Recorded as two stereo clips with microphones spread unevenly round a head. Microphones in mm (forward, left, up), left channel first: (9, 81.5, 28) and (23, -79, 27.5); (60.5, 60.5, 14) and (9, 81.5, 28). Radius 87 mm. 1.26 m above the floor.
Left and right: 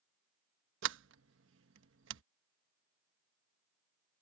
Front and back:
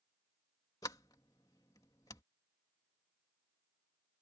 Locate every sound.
0.8 s a sliding door: 85° right